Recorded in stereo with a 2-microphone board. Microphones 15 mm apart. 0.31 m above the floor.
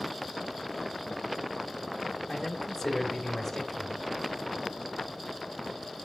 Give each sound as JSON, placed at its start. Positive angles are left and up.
{"t": 2.3, "sound": "a man speaking", "side_deg": 15, "distance_m": 1.5}